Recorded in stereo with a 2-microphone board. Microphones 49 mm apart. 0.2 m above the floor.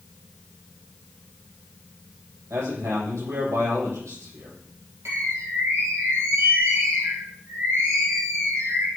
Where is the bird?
70° right (ahead or behind), 4 m.